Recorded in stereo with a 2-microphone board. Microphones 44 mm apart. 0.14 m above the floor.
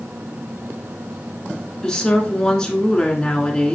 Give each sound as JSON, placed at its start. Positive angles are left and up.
{"t": 1.8, "sound": "a woman speaking", "side_deg": 15, "distance_m": 1.4}